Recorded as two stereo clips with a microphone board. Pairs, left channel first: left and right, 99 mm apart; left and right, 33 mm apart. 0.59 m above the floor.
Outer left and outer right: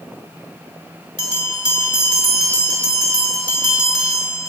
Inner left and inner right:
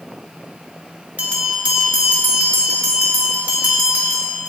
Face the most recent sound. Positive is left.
turn(degrees=-50)  # may be behind; listen again after turning